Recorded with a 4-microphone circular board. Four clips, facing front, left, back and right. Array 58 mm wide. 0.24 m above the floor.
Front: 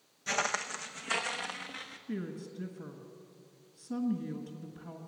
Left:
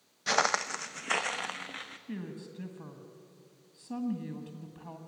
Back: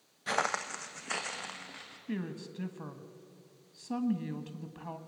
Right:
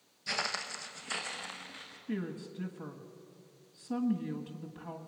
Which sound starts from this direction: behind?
A woman speaking, at 2.1 s.